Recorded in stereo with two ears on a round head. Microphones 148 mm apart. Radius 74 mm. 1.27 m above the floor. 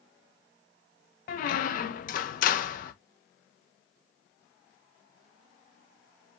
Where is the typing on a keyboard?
I don't hear typing on a keyboard.